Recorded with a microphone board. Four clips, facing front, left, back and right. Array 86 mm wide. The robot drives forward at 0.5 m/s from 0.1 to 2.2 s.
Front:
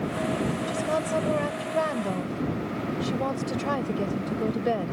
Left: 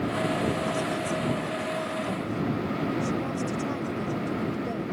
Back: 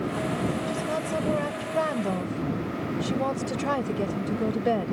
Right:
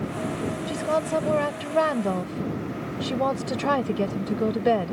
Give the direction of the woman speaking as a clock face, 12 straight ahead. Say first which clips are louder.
Right 4 dB, front 2 dB; 3 o'clock.